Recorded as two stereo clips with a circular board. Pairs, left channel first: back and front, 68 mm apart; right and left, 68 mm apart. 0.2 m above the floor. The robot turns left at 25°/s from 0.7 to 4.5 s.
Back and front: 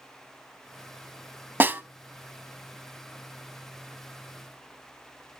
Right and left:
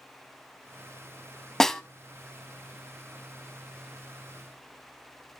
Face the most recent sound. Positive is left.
turn(degrees=-85)